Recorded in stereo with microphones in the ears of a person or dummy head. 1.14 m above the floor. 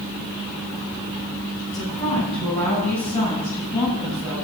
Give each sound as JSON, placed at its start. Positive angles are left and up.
{"t": 1.7, "sound": "a woman speaking", "side_deg": 25, "distance_m": 6.0}